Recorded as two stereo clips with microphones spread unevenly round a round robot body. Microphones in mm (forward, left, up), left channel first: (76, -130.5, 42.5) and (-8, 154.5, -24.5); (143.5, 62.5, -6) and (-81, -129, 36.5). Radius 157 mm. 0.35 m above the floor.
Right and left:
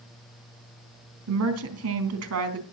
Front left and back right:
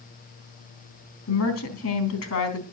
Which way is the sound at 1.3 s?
80° left.